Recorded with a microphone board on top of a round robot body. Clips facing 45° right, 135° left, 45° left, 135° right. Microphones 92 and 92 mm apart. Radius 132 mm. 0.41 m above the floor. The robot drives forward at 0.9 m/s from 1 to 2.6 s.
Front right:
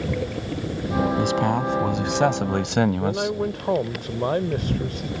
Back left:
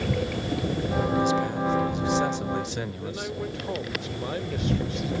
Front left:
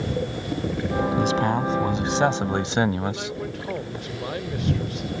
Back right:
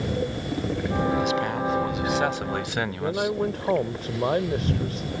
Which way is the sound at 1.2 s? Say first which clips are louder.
Front right 2 dB, front left 3 dB; 15° right.